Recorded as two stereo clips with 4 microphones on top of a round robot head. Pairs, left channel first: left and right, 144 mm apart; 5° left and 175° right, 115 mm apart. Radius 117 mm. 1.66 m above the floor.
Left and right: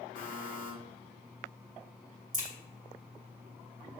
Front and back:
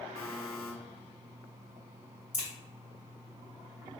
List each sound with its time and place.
0.1 s a buzzer: 90° right, 0.9 m
2.3 s a crack: 95° right, 1.1 m